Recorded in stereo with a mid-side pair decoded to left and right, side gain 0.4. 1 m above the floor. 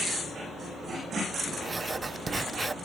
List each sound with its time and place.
1.6 s writing: 30° right, 0.5 m